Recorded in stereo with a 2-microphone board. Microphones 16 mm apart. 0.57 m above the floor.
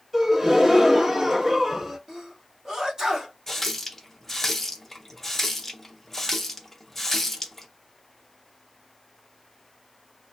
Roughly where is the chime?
I don't hear a chime.